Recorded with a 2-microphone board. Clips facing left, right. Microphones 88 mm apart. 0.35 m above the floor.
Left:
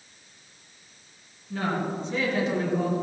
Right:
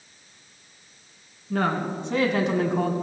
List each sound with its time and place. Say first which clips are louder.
1.5 s a woman speaking: right 3 dB; 65° right (ahead or behind), 3 m